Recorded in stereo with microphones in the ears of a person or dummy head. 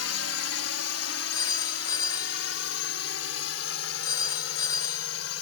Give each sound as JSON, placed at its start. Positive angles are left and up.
{"t": 0.0, "sound": "a drone", "side_deg": 80}
{"t": 1.3, "sound": "a phone ringing", "side_deg": 25}